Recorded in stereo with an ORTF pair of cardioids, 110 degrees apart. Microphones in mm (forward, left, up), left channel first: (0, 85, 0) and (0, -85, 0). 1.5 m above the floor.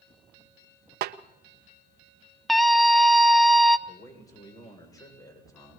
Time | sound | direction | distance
1.0 | a snare drum | 65° right | 1.0 m
2.5 | a scream | straight ahead | 0.7 m
3.9 | a man speaking | 20° left | 7.5 m